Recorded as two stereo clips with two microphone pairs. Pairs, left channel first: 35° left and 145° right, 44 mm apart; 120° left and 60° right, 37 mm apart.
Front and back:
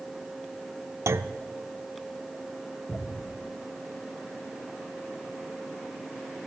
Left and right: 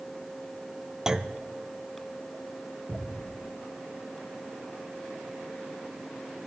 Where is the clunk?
135° right, 0.6 m.